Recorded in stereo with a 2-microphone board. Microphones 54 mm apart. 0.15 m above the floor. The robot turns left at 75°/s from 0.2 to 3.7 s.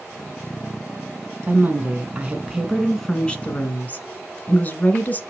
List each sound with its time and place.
1.5 s a woman speaking: 75° right, 1.6 m; by 5.2 s 115° left, 1.6 m